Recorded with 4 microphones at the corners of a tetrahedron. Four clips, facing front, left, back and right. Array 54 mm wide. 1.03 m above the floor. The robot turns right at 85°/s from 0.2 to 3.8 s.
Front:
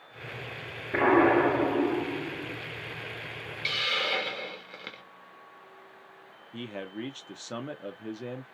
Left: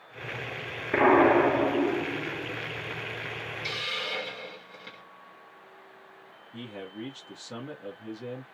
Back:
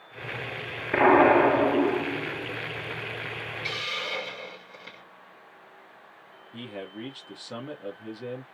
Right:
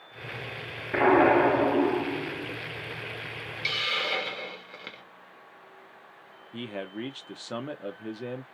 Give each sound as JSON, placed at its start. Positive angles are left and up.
{"t": 0.9, "sound": "an explosion", "azimuth_deg": 150, "distance_m": 2.5}
{"t": 3.6, "sound": "a hiss", "azimuth_deg": -55, "distance_m": 0.9}
{"t": 6.5, "sound": "a man speaking", "azimuth_deg": -65, "distance_m": 0.8}